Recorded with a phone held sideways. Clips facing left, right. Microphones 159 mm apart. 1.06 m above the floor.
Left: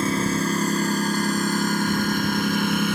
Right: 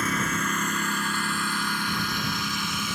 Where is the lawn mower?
30° left (ahead or behind); by 3.0 s 60° left (ahead or behind).